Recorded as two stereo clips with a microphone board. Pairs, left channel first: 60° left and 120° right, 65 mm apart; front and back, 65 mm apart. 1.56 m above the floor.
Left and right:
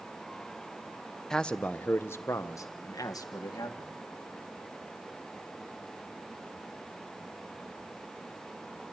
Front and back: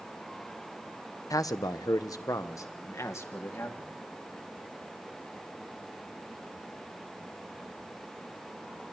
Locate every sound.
1.3 s a man speaking: 20° right, 0.8 m; by 3.9 s 50° left, 1.8 m